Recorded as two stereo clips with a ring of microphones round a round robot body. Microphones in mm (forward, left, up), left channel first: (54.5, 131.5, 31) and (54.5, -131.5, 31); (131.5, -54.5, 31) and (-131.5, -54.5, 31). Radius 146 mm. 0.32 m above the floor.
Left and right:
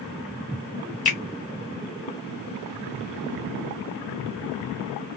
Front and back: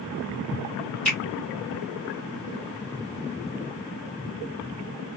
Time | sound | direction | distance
1.1 | a finger snap | 90° left | 1.7 m